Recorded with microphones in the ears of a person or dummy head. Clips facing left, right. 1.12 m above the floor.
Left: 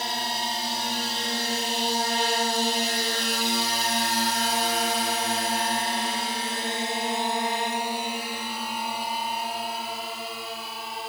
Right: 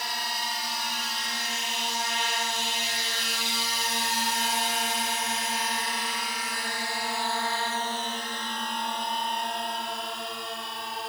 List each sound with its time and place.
0.0 s a drone: 30° left (ahead or behind); by 11.1 s 5° right (ahead or behind)